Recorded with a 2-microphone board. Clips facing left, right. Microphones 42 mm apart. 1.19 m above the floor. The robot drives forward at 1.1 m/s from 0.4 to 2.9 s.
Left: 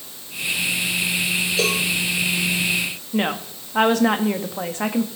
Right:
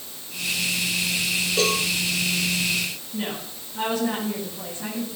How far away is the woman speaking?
About 1.8 m.